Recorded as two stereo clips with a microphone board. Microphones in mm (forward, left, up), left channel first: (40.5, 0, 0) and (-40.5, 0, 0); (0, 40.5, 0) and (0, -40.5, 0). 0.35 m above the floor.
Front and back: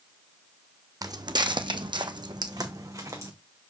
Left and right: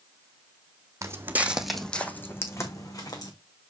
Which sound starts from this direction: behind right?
Footsteps, at 1.0 s.